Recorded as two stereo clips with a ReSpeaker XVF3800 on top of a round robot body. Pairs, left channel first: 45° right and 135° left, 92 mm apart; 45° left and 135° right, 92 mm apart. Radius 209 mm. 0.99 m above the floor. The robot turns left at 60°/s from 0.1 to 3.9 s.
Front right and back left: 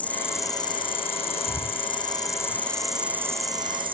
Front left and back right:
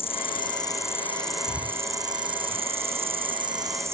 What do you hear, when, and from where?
0.0 s an insect: 30° left; by 3.9 s 160° left
1.5 s breathing: 10° left; by 2.6 s 60° right